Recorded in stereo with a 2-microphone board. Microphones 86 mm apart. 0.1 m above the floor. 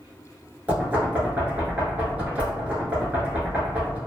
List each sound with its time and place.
0.7 s knocking: 15° right (ahead or behind), 1.0 m